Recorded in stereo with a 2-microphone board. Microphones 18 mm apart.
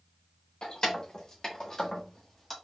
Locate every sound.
0.6 s keys jangling: 50° left (ahead or behind), 1.6 m; by 2.5 s 10° left (ahead or behind), 1.2 m